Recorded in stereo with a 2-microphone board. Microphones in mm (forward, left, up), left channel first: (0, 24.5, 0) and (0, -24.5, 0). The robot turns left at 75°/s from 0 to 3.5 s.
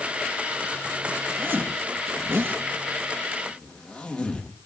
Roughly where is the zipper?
Right.